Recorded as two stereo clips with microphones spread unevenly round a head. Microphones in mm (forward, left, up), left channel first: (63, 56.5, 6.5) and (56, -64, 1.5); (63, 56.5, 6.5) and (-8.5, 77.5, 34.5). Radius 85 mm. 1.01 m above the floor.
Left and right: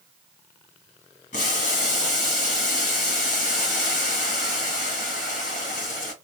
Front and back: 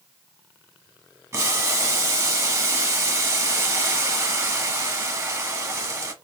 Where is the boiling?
105° left, 1.4 m.